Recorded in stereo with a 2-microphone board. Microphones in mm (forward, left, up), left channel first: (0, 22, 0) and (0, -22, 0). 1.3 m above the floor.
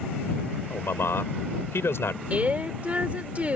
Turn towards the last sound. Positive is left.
turn(degrees=-35)  # may be behind; listen again after turning